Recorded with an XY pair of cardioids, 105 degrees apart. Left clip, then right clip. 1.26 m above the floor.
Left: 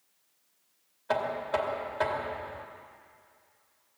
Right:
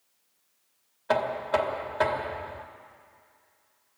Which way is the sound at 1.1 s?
35° right.